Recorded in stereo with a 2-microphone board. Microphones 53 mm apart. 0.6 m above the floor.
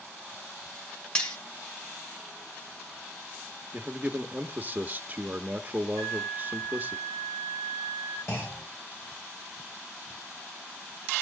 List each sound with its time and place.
1.1 s cutlery clinking: 20° left (ahead or behind), 1.6 m
3.7 s a man speaking: 30° right (ahead or behind), 0.8 m
6.0 s a flute: 75° left (ahead or behind), 6.5 m
8.3 s a clunk: 60° left (ahead or behind), 5.5 m